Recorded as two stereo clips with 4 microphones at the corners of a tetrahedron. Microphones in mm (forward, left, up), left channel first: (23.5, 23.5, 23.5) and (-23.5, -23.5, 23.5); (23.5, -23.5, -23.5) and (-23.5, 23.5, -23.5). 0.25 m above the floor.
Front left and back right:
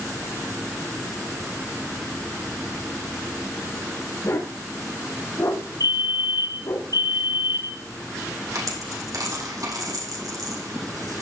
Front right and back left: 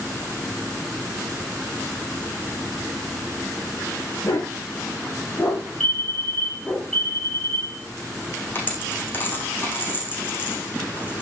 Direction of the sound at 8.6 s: 105° right.